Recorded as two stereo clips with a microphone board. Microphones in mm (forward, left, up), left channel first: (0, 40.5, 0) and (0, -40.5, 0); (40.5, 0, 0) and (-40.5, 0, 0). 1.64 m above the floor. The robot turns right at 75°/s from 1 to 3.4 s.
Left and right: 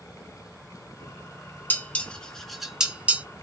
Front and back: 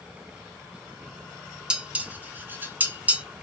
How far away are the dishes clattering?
About 0.7 m.